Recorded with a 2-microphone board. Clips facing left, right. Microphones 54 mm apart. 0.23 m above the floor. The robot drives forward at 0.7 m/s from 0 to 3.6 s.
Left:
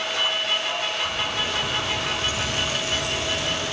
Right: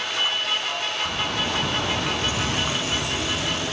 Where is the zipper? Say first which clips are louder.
Even; 30° right (ahead or behind), 0.9 m; by 3.7 s 20° right (ahead or behind), 1.4 m.